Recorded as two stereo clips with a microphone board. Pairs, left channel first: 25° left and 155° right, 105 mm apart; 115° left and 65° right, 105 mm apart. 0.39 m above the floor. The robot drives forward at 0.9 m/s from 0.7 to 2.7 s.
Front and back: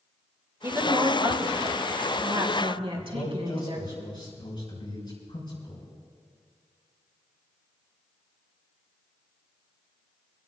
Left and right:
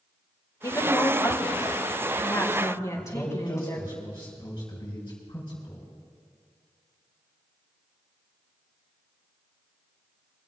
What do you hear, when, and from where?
0.6 s a woman speaking: 150° left, 1.2 m; by 4.0 s 170° left, 2.5 m
3.0 s a man speaking: 50° left, 4.5 m